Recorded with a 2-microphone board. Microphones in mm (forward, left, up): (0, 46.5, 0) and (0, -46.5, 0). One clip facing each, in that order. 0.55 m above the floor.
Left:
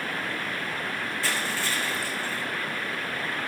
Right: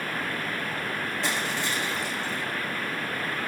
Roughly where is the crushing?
Right.